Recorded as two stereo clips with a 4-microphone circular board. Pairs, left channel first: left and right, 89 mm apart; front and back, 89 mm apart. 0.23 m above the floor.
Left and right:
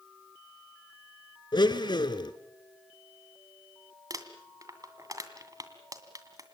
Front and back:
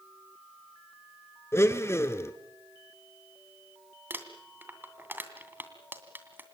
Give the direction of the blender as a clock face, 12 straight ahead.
10 o'clock.